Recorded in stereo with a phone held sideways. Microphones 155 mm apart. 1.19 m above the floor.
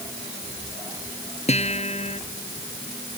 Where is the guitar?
45° left (ahead or behind).